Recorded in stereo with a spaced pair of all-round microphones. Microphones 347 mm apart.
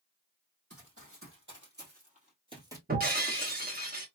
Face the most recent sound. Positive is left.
turn(degrees=-25)  # may be behind; listen again after turning